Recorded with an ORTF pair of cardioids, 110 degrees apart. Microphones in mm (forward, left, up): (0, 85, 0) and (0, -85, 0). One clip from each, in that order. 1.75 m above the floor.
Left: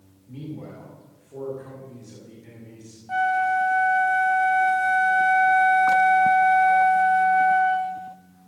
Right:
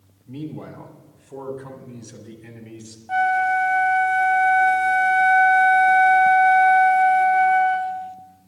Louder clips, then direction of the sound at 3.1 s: Right 2 dB; 15° right.